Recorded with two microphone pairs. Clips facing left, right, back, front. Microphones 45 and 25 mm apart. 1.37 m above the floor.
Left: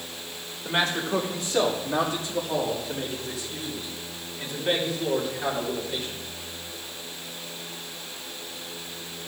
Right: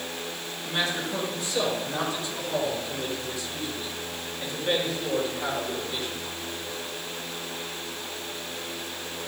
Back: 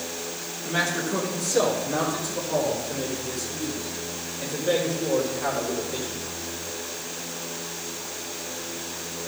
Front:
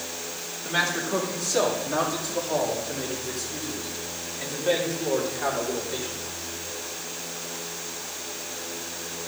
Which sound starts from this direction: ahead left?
A man speaking, at 0.7 s.